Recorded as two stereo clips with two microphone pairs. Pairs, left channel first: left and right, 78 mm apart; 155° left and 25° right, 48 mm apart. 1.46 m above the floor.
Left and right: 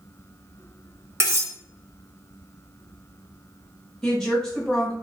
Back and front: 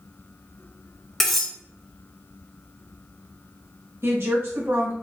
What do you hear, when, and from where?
1.2 s cutlery clinking: 125° right, 0.9 m
4.0 s a woman speaking: 5° left, 1.4 m